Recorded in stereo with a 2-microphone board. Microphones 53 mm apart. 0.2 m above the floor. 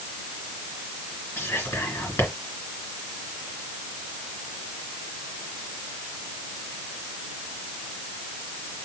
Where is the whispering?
50° left (ahead or behind), 3 m.